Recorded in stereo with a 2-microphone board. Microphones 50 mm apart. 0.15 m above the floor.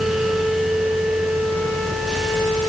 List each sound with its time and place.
Only background noise.